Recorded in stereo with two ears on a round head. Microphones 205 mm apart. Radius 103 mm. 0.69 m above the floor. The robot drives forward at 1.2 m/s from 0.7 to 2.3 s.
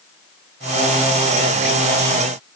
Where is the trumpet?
I don't hear a trumpet.